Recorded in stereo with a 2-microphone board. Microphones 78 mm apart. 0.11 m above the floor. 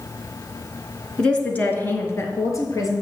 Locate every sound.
1.2 s a woman speaking: 10° left (ahead or behind), 1.2 m; by 3.0 s 50° left (ahead or behind), 2 m